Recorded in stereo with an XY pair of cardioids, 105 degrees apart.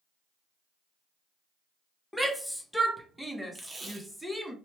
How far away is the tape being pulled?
About 0.7 m.